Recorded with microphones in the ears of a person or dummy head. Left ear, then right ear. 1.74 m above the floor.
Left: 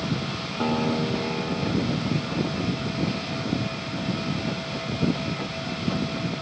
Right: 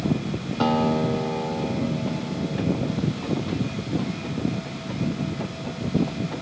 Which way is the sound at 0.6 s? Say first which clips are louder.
Right 4 dB; 25° right (ahead or behind).